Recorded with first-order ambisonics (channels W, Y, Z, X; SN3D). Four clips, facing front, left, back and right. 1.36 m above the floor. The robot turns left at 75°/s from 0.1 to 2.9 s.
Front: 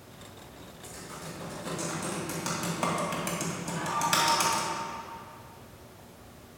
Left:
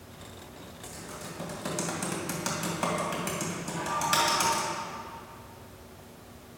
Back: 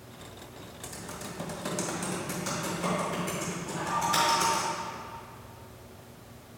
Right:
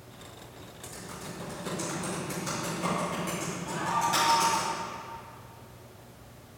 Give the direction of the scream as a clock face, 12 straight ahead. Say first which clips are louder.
Right 1 dB, even; 3 o'clock.